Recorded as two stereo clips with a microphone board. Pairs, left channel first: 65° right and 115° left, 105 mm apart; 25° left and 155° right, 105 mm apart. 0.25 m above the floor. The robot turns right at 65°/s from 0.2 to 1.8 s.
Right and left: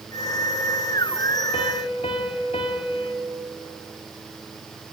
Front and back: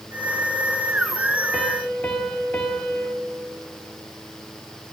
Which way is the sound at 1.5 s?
70° right.